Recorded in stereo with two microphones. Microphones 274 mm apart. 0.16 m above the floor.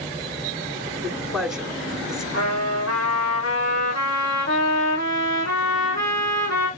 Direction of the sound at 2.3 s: 75° left (ahead or behind).